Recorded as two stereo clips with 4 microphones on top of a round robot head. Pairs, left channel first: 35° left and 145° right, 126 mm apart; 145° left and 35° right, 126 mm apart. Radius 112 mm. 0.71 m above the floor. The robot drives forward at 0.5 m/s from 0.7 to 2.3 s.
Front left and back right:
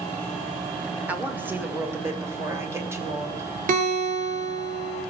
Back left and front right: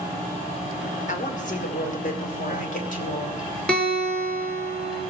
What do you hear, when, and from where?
1.1 s a woman speaking: 135° left, 2.5 m; by 3.5 s 145° left, 3 m
3.7 s a guitar: 130° right, 3.5 m